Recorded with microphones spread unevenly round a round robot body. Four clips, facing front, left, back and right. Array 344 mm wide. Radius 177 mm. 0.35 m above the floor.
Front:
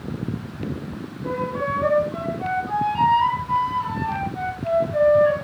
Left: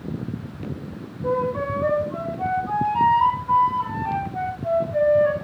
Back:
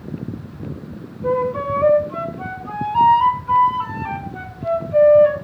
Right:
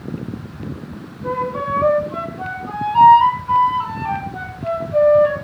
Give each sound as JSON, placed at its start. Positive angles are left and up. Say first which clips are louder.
{"t": 1.2, "sound": "a flute", "louder": "right 1 dB, back 6 dB", "azimuth_deg": -130, "distance_m": 5.0}